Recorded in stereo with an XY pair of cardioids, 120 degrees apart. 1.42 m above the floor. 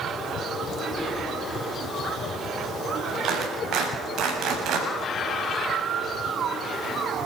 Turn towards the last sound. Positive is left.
turn(degrees=-65)